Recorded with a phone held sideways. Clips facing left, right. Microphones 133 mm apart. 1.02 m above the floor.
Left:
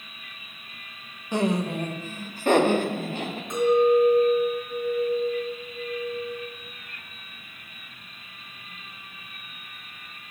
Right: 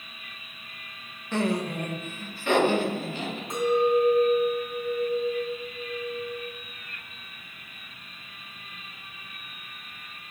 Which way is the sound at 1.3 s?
10° left (ahead or behind).